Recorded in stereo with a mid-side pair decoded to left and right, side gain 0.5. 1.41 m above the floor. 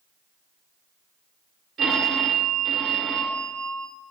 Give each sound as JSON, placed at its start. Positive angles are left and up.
{"t": 1.8, "sound": "a phone ringing", "azimuth_deg": -60, "distance_m": 2.5}